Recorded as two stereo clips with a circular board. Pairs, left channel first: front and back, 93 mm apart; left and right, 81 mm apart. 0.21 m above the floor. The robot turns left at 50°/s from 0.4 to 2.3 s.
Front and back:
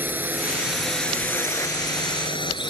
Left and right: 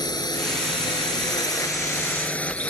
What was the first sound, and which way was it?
A drone, 115° left.